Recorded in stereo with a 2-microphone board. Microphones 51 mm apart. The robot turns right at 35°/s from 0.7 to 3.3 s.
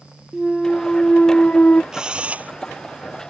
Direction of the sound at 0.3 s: Straight ahead.